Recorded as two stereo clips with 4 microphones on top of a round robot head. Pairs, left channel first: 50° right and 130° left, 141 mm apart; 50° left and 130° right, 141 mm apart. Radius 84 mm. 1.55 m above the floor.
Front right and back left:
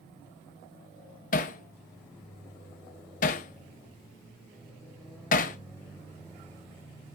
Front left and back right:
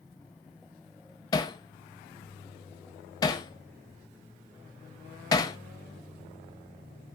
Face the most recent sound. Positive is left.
turn(degrees=-15)